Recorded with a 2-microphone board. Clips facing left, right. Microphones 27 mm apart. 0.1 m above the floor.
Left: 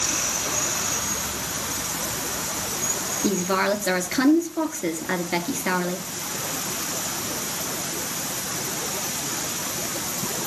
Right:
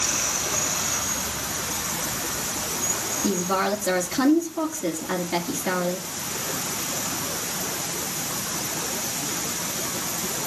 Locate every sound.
3.2 s a woman speaking: 30° left (ahead or behind), 2 m